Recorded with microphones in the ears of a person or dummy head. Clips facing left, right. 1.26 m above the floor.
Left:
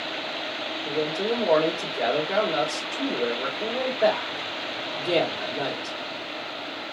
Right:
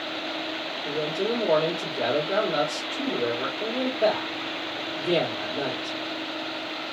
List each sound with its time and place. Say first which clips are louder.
0.8 s a man speaking: left 1 dB; 10° right (ahead or behind), 1.3 m